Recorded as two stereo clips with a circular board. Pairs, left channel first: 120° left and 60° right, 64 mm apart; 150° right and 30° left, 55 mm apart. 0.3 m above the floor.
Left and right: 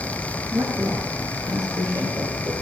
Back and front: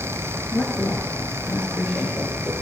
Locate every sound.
0.5 s a woman speaking: 90° right, 5 m; by 2.5 s 65° right, 6.5 m